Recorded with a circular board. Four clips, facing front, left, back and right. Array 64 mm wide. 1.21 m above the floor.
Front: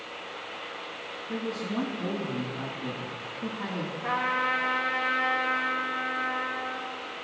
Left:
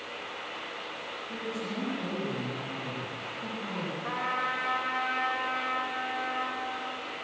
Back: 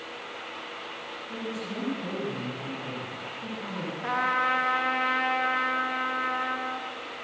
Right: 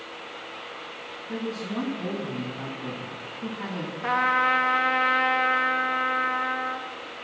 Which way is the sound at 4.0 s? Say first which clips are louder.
Right 10 dB, back 2 dB; 100° right.